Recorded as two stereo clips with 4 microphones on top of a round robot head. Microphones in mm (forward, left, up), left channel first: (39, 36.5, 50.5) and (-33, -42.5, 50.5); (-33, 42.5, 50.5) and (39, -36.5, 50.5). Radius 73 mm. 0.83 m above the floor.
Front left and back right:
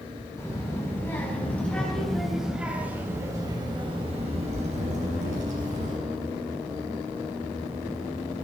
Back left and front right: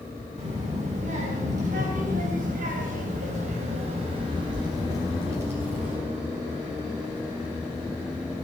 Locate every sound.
0.4 s a child speaking: 15° right, 5.5 m; by 6.0 s 125° right, 5 m